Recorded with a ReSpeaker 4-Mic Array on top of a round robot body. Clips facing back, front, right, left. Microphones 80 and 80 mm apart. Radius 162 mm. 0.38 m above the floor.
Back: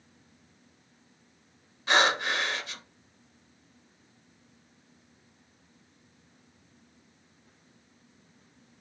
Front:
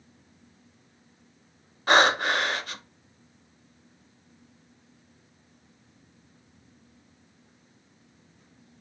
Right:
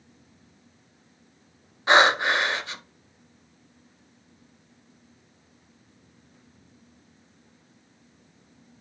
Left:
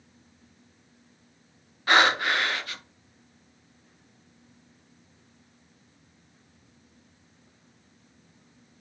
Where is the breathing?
30° right, 0.7 m.